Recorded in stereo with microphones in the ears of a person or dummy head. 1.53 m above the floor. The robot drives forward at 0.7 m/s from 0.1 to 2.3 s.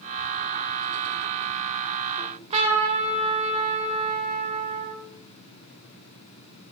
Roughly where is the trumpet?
Right.